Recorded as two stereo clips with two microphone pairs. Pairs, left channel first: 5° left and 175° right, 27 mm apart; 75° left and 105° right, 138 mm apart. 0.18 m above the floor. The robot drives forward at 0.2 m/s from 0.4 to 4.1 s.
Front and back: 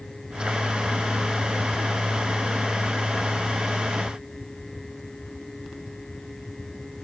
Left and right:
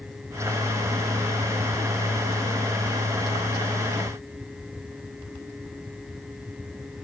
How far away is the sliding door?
I don't hear a sliding door.